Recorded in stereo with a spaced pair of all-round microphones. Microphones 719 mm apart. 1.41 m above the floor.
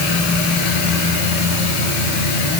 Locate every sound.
Only background noise.